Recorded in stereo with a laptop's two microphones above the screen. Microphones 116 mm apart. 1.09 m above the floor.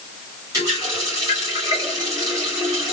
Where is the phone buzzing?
I don't hear a phone buzzing.